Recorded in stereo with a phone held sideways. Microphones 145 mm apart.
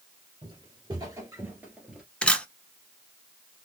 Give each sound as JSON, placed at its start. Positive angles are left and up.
{"t": 0.4, "sound": "footsteps", "side_deg": -35, "distance_m": 1.6}
{"t": 2.2, "sound": "a camera shutter", "side_deg": 5, "distance_m": 0.6}